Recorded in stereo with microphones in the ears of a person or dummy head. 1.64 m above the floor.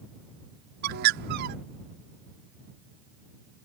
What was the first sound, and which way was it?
A bird, 60° right (ahead or behind).